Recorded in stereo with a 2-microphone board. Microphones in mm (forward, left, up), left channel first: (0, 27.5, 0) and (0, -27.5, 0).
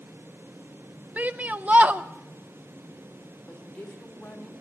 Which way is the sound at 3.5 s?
20° left (ahead or behind).